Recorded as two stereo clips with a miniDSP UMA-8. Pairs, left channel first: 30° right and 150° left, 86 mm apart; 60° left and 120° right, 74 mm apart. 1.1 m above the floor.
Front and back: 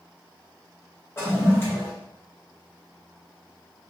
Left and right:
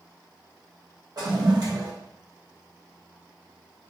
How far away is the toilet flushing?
About 1.3 m.